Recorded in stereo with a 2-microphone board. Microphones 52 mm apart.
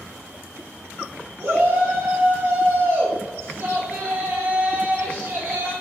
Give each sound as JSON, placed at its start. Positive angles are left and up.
{"t": 1.4, "sound": "a shout", "side_deg": -55, "distance_m": 2.5}